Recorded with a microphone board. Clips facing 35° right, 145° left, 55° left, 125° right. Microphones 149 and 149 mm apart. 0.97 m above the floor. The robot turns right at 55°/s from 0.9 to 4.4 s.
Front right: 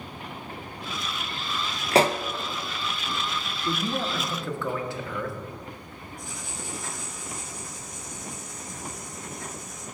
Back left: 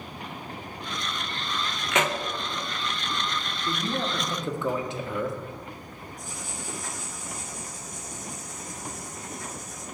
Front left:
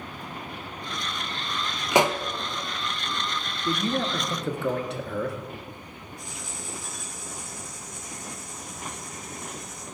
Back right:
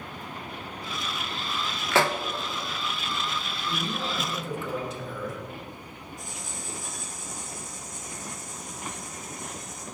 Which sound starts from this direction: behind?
Writing, at 6.2 s.